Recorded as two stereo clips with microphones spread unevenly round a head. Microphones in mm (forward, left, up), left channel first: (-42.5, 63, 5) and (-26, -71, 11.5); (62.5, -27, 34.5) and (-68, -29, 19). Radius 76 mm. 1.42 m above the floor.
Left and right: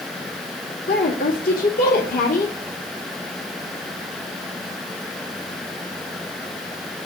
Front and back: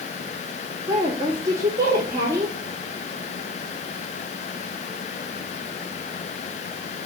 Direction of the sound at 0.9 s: 105° left.